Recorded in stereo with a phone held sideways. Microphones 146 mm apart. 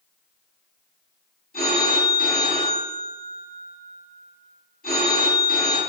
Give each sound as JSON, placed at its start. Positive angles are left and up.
{"t": 1.5, "sound": "a phone ringing", "side_deg": 80, "distance_m": 3.5}